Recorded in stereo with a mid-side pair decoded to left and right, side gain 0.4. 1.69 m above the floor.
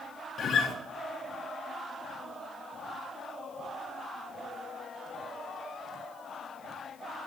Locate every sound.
0.4 s a guitar: 60° left, 0.9 m